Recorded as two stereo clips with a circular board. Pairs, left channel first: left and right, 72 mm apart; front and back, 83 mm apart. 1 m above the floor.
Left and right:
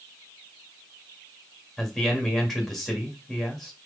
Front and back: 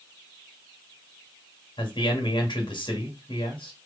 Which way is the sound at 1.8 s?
Straight ahead.